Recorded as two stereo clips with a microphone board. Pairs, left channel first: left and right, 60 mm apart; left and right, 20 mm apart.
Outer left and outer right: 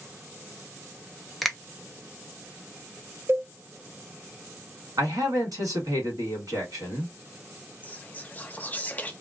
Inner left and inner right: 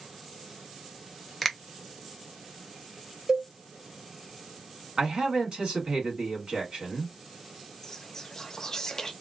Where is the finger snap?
Centre (ahead or behind), 0.6 m.